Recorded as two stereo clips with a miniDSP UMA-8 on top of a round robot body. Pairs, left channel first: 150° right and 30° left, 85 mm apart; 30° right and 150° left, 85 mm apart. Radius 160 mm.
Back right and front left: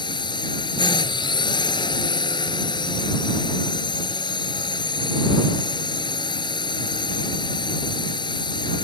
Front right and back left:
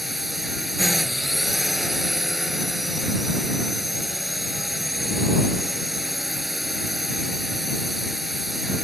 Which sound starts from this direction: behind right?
A drone, at 0.0 s.